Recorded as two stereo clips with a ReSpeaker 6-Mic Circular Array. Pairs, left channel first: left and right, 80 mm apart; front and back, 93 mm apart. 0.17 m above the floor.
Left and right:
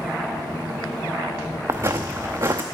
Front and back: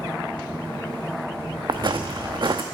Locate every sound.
1.7 s footsteps: 140° right, 0.7 m